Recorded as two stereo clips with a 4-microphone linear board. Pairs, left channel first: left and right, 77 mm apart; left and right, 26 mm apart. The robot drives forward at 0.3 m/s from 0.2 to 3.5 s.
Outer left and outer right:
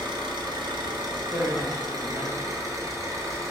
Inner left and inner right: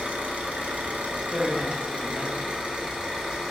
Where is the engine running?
85° right, 0.9 m; by 3.5 s 40° right (ahead or behind), 1.4 m.